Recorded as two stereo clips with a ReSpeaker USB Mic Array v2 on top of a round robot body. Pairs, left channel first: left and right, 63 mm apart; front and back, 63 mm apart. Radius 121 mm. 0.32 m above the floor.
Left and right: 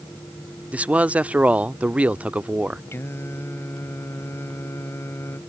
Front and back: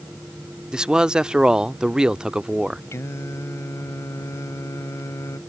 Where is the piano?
No piano in this recording.